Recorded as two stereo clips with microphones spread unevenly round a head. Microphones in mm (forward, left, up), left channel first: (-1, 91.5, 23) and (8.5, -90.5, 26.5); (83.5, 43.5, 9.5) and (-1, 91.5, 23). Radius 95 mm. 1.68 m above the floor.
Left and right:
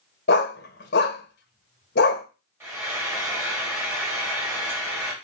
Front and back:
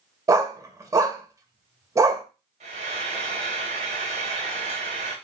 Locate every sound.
0.3 s a dog barking: 110° left, 2 m
2.6 s frying: 165° right, 4.5 m